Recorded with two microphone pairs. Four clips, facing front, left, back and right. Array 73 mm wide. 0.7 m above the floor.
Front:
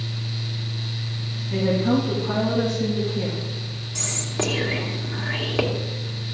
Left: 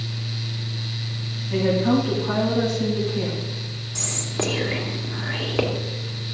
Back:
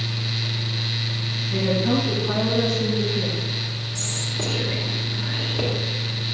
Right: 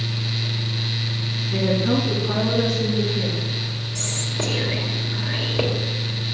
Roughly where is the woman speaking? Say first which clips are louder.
Left 2 dB, front 1 dB; left.